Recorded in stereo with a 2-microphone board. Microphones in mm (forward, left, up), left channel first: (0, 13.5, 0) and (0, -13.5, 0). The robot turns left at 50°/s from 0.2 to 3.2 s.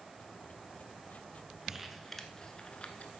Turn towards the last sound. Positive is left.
turn(degrees=60)  # may be behind; listen again after turning